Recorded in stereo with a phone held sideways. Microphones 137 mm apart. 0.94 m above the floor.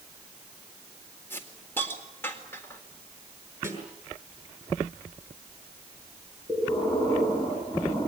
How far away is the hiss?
About 4 m.